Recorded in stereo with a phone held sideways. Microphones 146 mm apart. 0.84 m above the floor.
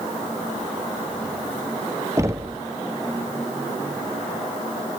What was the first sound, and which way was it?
Knocking, 20° right (ahead or behind).